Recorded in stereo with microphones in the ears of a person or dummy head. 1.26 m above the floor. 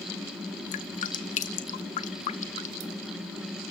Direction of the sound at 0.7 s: 40° left (ahead or behind).